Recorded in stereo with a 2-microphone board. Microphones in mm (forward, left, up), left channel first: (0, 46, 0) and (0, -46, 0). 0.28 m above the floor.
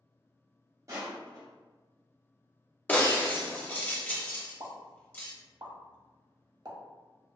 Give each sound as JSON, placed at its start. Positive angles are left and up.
{"t": 0.9, "sound": "crushing", "side_deg": -35, "distance_m": 0.9}
{"t": 2.9, "sound": "breaking glass", "side_deg": 20, "distance_m": 0.5}
{"t": 4.6, "sound": "a pop", "side_deg": -45, "distance_m": 0.6}